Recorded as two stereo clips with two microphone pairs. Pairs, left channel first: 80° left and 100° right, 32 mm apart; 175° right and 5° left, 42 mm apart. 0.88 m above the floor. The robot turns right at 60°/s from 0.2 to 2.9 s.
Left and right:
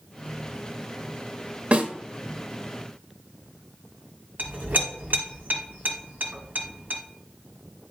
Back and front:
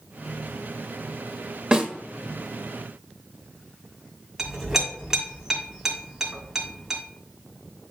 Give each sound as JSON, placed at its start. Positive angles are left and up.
{"t": 1.7, "sound": "a snare drum", "azimuth_deg": -65, "distance_m": 1.2}
{"t": 4.4, "sound": "a clink", "azimuth_deg": -80, "distance_m": 2.0}